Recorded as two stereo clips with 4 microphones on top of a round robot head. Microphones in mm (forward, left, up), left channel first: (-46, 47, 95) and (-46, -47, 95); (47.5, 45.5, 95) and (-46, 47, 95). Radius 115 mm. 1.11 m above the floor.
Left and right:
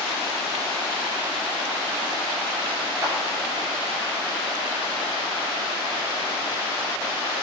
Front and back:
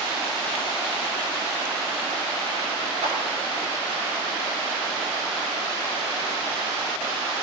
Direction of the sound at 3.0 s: 150° right.